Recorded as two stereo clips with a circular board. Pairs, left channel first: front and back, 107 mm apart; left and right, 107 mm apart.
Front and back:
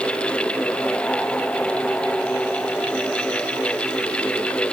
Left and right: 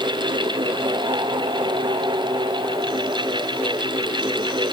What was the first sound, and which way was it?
Only background noise.